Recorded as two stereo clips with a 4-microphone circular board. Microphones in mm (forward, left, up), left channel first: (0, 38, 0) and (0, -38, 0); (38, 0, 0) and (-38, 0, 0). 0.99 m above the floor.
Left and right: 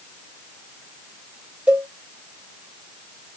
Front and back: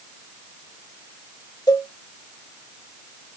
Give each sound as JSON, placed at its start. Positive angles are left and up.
{"t": 1.7, "sound": "a cowbell", "azimuth_deg": -20, "distance_m": 0.9}